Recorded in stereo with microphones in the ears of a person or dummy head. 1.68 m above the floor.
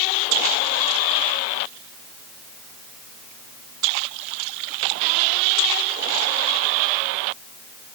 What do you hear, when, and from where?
Only background noise.